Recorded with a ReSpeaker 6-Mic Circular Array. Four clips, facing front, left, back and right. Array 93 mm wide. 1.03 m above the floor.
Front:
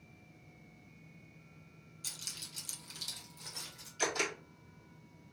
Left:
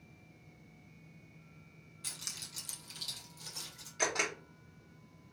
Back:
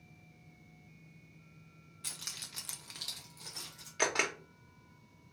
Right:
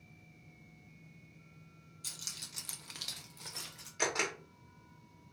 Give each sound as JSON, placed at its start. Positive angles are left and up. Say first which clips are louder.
{"t": 2.0, "sound": "keys jangling", "louder": "left 2 dB, back 3 dB", "azimuth_deg": 145, "distance_m": 1.0}
{"t": 4.0, "sound": "a camera shutter", "louder": "even, back 2 dB", "azimuth_deg": -175, "distance_m": 1.2}